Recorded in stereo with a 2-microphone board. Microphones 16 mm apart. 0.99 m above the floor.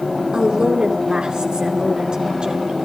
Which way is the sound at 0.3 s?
50° right (ahead or behind).